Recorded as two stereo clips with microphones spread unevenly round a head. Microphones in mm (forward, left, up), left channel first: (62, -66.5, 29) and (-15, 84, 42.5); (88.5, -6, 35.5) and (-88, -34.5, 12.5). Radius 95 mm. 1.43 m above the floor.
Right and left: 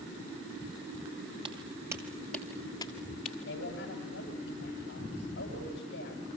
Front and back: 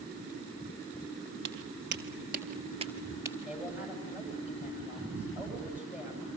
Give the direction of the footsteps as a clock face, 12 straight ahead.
6 o'clock.